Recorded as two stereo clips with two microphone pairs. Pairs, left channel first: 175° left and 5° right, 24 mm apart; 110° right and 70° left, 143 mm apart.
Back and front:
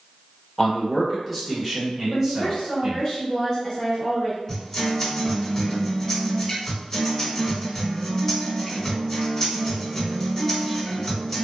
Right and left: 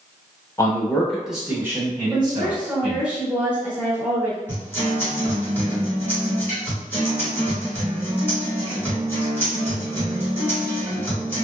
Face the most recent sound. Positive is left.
turn(degrees=-160)